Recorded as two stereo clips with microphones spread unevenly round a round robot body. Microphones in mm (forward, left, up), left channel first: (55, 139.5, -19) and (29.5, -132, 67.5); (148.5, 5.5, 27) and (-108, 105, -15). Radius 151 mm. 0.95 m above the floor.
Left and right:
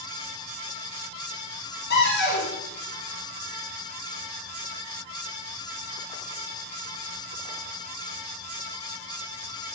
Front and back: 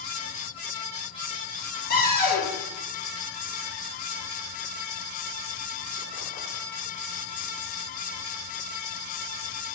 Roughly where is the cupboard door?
Ahead left.